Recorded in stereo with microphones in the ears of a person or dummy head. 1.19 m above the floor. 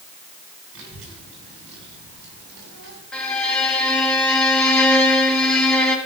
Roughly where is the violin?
Centre.